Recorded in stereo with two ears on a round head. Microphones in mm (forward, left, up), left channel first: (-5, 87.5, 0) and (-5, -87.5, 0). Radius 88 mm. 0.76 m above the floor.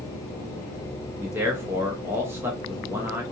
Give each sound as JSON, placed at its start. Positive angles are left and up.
{"t": 1.2, "sound": "a man speaking", "side_deg": -10, "distance_m": 0.5}